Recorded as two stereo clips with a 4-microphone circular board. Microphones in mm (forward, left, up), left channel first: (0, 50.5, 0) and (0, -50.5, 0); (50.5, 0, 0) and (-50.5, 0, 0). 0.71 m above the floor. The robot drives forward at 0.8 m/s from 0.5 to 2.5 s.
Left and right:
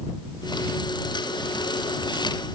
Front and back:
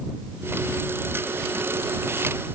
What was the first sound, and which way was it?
Only background noise.